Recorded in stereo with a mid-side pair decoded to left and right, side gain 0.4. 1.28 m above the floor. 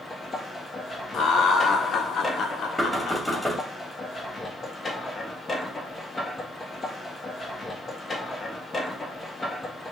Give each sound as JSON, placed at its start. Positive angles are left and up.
{"t": 0.0, "sound": "a machine running", "azimuth_deg": 35, "distance_m": 1.2}
{"t": 1.1, "sound": "laughter", "azimuth_deg": 70, "distance_m": 1.0}
{"t": 2.8, "sound": "knocking", "azimuth_deg": 5, "distance_m": 2.0}